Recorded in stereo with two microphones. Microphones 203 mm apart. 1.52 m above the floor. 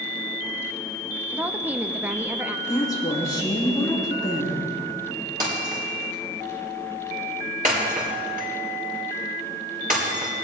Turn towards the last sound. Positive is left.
turn(degrees=-45)  # may be behind; listen again after turning